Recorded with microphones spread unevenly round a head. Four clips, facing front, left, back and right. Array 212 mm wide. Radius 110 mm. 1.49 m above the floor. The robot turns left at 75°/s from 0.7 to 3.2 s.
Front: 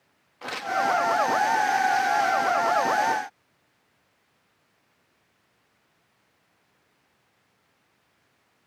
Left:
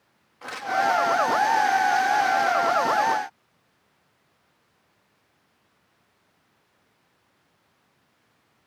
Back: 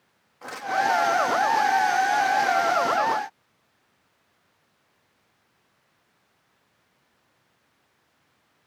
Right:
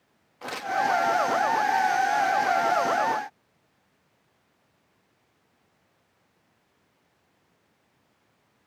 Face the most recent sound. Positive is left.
turn(degrees=130)